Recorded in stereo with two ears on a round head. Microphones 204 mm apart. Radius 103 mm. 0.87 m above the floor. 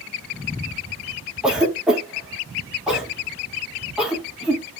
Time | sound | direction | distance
1.4 | a cough | 5° right (ahead or behind) | 1.4 m